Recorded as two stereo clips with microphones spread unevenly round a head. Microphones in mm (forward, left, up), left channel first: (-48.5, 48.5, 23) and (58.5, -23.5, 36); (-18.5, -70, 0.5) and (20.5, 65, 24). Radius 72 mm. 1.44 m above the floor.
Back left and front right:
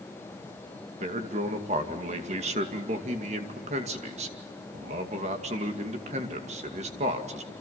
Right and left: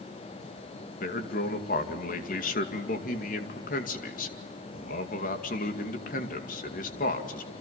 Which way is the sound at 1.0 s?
75° right.